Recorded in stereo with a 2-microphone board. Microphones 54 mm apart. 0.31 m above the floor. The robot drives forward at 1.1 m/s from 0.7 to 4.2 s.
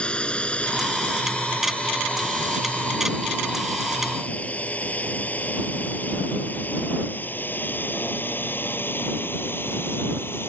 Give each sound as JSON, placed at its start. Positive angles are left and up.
{"t": 0.0, "sound": "a drone", "side_deg": 20}